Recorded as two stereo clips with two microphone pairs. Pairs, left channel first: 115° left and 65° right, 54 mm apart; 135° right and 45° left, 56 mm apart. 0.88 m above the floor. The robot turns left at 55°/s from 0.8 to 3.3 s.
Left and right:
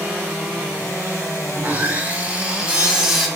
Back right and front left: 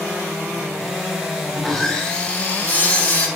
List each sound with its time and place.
1.6 s sawing: 50° right, 0.6 m; by 3.3 s 145° right, 0.6 m